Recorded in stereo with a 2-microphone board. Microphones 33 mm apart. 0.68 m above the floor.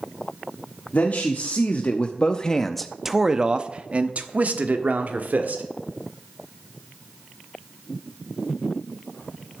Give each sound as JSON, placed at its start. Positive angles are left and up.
{"t": 0.9, "sound": "a man speaking", "side_deg": 55, "distance_m": 1.3}